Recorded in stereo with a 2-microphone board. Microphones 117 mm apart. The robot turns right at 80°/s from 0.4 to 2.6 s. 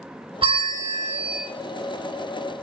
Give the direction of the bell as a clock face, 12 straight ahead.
3 o'clock.